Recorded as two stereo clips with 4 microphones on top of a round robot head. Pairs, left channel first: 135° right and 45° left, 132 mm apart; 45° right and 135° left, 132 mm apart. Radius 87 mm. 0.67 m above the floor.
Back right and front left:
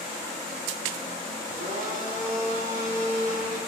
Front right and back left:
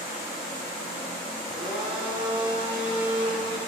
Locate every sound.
1.4 s a blender: 75° left, 5 m